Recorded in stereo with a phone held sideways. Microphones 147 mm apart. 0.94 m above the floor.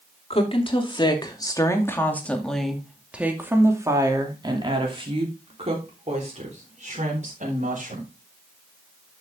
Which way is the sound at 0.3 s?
40° left (ahead or behind).